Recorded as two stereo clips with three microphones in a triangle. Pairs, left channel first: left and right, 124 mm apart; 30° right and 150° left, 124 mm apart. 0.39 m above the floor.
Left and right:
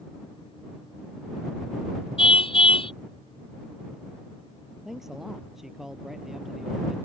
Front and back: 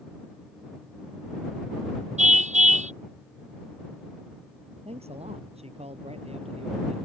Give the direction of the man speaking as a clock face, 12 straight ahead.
6 o'clock.